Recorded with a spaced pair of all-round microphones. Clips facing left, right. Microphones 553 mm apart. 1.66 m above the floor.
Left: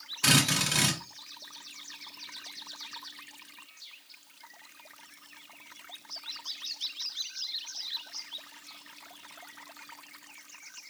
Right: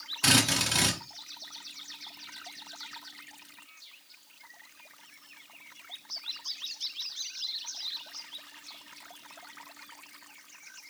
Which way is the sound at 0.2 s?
5° right (ahead or behind).